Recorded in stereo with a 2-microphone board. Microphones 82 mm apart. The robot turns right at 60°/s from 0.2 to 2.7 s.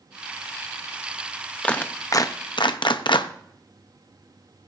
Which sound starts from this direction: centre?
A clap, at 1.6 s.